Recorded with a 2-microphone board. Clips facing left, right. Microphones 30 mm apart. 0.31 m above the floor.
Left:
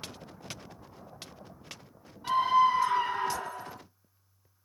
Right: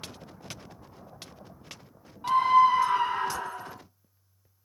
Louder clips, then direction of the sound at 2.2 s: Right 4 dB; 65° right (ahead or behind).